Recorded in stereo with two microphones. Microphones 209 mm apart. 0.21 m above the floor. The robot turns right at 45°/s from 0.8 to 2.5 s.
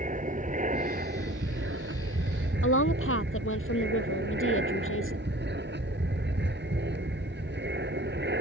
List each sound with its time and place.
0.0 s an aircraft: 140° right; by 8.4 s 65° right
2.6 s a woman speaking: 80° left